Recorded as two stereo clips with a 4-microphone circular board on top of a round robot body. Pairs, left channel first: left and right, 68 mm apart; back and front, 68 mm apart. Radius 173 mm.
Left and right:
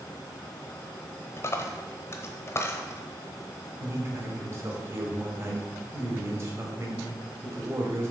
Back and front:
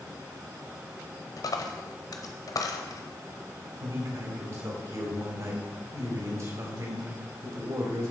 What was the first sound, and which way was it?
A dropped coin, 145° left.